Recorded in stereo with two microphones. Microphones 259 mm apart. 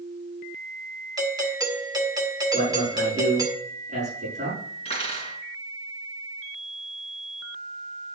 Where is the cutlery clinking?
25° left (ahead or behind), 4 m.